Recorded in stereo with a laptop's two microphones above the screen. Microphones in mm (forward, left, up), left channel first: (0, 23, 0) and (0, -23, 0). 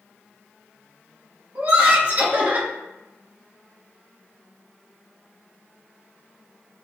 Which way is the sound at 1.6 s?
45° right (ahead or behind).